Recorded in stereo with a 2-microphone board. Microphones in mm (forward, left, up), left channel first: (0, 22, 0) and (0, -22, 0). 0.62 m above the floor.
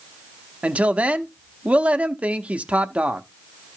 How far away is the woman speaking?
About 0.7 m.